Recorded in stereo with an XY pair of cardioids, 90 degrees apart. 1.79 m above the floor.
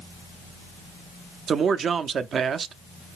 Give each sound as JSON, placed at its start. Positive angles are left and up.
{"t": 1.5, "sound": "a man speaking", "azimuth_deg": -60, "distance_m": 0.5}